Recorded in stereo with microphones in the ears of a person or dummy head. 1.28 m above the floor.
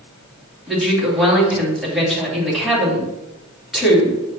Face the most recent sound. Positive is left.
turn(degrees=0)  # may be behind; listen again after turning